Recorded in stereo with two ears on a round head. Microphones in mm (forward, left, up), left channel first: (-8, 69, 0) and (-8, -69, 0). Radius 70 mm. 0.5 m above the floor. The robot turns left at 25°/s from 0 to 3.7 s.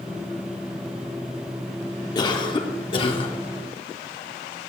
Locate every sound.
2.1 s a cough: 25° left (ahead or behind), 1.2 m; by 3.3 s 35° left (ahead or behind), 1.2 m